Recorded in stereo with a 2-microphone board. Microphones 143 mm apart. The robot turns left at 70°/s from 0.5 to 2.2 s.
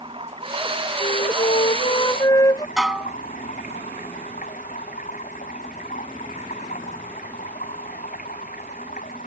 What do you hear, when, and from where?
0.0 s running water: 140° right; by 9.3 s 105° left
1.0 s a flute: 115° left; by 2.7 s 30° left
2.8 s dishes clattering: 5° right (ahead or behind)